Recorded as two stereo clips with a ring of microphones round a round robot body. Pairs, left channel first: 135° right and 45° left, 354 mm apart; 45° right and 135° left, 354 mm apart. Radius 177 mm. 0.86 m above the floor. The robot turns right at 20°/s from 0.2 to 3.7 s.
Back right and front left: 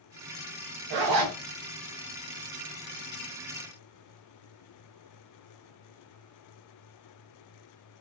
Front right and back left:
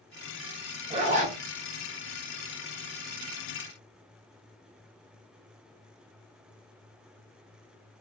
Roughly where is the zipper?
Ahead left.